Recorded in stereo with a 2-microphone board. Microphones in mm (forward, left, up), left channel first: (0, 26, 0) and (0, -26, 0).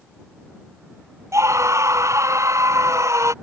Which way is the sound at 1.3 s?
75° right (ahead or behind).